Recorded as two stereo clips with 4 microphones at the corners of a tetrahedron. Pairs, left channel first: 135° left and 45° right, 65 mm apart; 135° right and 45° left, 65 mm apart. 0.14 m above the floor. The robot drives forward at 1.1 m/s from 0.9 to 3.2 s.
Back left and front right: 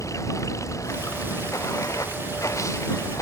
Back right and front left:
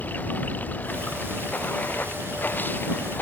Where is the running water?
165° left.